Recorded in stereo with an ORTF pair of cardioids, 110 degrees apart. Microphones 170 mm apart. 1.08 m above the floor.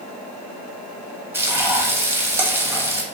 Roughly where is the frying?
Ahead.